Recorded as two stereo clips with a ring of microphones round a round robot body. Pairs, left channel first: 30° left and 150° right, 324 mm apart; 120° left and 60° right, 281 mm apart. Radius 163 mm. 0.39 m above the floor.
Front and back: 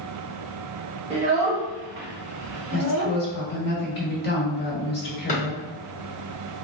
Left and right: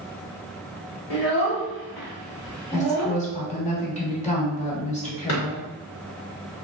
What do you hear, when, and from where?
1.1 s a child speaking: 140° left, 1.2 m; by 3.2 s 145° right, 0.9 m
2.7 s a woman speaking: 70° left, 1.2 m
5.3 s a drawer: 90° left, 1.4 m